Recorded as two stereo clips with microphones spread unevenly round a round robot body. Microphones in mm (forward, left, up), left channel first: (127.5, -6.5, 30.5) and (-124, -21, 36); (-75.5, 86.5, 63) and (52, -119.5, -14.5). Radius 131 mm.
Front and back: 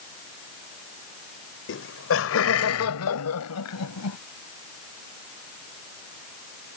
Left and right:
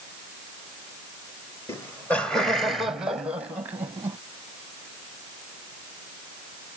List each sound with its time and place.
1.7 s laughter: 30° left; by 4.2 s 15° left